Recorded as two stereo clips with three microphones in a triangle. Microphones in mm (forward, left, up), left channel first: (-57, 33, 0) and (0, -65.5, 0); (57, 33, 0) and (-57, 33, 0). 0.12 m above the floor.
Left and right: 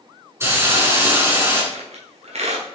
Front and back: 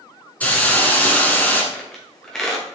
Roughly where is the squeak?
Right.